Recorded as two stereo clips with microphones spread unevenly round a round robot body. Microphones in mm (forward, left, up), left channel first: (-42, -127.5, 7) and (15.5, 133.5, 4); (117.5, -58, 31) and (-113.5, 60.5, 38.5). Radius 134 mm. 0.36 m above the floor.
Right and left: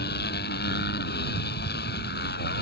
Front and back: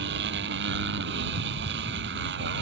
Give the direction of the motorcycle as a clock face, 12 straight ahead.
5 o'clock.